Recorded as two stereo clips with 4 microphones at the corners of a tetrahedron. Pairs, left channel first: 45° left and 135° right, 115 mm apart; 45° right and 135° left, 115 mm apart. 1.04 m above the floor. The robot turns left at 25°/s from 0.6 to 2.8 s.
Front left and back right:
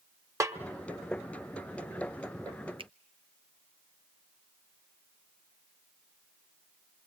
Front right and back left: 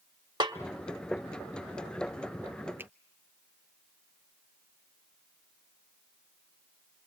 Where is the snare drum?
170° left, 1.1 m.